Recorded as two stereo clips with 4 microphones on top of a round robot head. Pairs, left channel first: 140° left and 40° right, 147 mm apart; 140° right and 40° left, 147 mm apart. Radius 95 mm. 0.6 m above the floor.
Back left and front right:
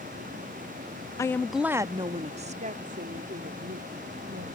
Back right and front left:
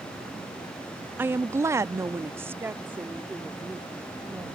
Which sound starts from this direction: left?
A woman speaking, at 1.2 s.